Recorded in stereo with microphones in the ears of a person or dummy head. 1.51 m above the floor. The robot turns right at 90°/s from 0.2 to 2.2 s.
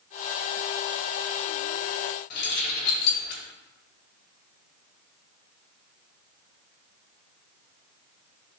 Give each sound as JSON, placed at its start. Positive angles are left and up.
{"t": 2.3, "sound": "keys jangling", "side_deg": 50, "distance_m": 2.5}